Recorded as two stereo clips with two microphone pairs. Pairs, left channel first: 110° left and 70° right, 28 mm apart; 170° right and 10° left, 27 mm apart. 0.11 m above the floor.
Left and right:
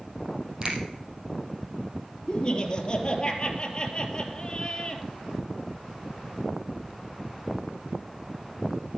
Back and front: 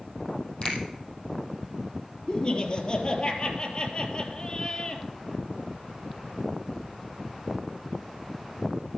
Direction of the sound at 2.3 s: 150° left.